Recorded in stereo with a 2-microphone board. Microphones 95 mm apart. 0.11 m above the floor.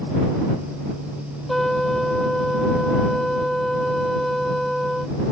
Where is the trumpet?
Centre (ahead or behind).